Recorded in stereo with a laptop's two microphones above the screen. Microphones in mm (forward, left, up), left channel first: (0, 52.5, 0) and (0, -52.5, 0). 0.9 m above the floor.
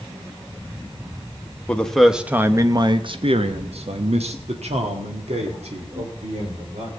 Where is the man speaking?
10° left (ahead or behind), 0.8 m; by 6.9 s 75° right (ahead or behind), 2.5 m.